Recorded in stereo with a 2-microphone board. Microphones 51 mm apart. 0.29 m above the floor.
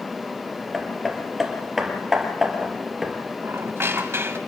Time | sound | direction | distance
0.7 | hammering | 5° right (ahead or behind) | 3 m
3.4 | a squeak | 55° right (ahead or behind) | 1.1 m